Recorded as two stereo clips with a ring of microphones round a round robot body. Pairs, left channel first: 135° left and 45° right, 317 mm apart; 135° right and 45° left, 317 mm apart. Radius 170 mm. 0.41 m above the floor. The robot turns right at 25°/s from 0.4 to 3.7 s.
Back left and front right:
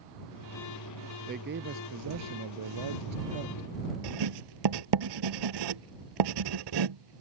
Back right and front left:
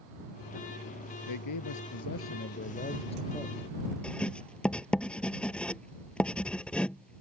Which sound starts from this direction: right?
A man speaking, at 1.3 s.